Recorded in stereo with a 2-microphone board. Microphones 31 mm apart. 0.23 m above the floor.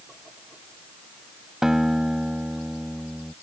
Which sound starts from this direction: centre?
A guitar, at 1.6 s.